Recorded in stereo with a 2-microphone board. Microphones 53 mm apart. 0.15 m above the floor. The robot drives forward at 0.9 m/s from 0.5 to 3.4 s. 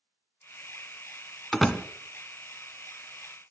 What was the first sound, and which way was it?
A door slam, centre (ahead or behind).